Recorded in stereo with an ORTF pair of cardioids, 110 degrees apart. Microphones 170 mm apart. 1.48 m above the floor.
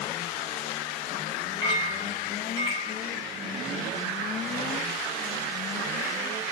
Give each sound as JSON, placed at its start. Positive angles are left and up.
{"t": 1.6, "sound": "a clink", "azimuth_deg": 20, "distance_m": 1.2}